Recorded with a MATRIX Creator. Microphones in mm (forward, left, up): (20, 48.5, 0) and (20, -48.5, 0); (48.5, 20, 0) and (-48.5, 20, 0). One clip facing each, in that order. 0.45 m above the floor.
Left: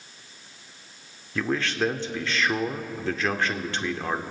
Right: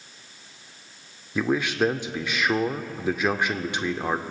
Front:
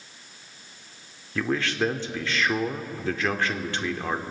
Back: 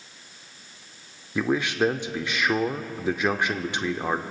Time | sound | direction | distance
1.4 | a man speaking | 140° right | 0.7 m